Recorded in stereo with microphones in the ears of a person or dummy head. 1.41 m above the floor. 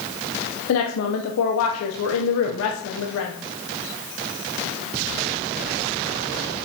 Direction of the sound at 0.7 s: 75° left (ahead or behind).